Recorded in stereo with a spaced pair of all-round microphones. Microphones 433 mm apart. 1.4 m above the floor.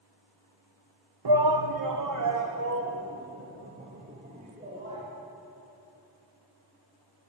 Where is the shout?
60° right (ahead or behind), 0.8 m; by 5.0 s 15° right (ahead or behind), 3 m.